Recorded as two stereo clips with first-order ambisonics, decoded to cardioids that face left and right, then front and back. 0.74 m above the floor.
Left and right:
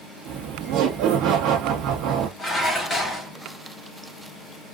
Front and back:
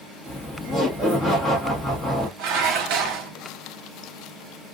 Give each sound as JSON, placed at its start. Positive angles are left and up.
{"t": 0.2, "sound": "laughter", "azimuth_deg": -85, "distance_m": 0.6}
{"t": 2.4, "sound": "dishes clattering", "azimuth_deg": 170, "distance_m": 0.9}